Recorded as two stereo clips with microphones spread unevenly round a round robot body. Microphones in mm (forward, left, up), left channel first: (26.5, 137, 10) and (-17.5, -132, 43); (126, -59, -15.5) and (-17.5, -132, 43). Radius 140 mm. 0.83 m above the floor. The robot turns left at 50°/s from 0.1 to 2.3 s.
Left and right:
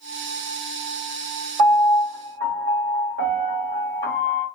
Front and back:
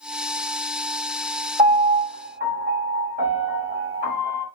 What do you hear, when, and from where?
1.6 s a piano: 110° right, 1.5 m; by 4.5 s 150° right, 1.5 m